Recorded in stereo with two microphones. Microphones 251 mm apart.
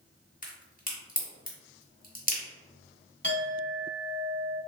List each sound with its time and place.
0.4 s a crack: 35° left (ahead or behind), 1.1 m
3.2 s a clink: 45° left (ahead or behind), 1.3 m